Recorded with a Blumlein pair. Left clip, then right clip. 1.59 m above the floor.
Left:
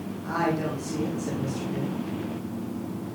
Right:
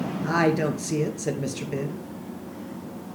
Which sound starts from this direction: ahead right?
A woman speaking, at 0.2 s.